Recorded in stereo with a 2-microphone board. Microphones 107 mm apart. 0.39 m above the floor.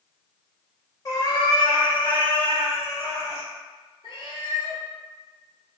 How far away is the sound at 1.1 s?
About 0.6 m.